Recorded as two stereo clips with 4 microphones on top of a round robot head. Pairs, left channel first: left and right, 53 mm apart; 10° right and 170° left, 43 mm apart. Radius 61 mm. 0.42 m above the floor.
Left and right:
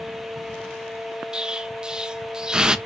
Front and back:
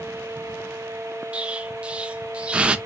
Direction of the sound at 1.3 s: 155° right.